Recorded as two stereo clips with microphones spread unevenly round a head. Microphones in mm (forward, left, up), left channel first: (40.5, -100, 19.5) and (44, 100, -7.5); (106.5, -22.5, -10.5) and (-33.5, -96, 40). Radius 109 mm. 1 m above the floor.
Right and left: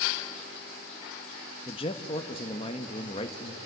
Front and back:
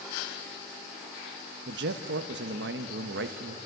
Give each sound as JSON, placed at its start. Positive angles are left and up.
{"t": 1.7, "sound": "a man speaking", "azimuth_deg": -160, "distance_m": 1.0}